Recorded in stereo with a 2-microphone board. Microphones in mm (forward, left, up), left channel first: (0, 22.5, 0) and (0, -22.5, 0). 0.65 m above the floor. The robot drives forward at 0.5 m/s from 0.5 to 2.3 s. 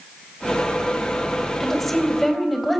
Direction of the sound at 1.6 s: 5° left (ahead or behind).